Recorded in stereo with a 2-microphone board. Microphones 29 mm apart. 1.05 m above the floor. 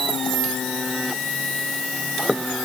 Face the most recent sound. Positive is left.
No sound to turn to.